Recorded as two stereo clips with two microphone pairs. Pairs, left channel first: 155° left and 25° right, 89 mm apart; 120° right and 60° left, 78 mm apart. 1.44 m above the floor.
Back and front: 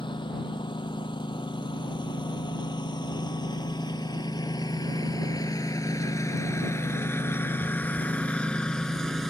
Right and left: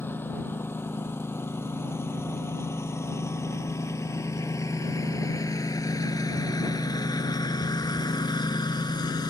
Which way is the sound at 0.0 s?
Straight behind.